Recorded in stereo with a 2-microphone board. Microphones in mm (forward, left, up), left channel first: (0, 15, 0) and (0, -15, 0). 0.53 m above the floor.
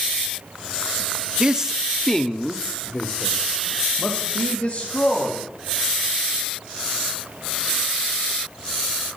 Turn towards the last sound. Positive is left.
turn(degrees=65)  # may be behind; listen again after turning